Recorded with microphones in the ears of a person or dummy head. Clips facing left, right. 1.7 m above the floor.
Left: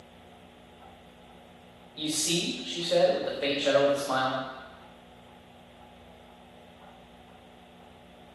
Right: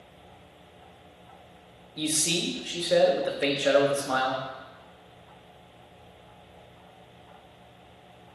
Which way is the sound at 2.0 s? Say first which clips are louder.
Right 1 dB; 30° right (ahead or behind).